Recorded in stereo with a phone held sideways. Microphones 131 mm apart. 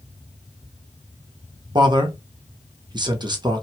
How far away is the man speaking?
About 0.8 m.